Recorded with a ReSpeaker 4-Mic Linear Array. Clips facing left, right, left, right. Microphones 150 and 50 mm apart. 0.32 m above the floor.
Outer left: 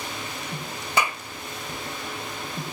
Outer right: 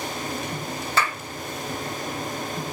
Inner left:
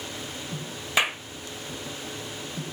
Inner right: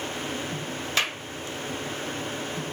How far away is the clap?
About 0.7 m.